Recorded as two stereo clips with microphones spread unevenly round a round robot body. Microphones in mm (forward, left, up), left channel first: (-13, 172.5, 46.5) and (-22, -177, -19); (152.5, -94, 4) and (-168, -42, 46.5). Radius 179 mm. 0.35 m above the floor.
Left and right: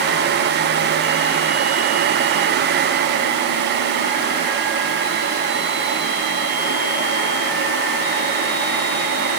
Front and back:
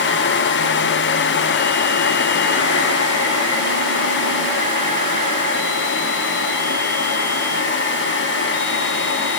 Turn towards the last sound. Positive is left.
No sound to turn to.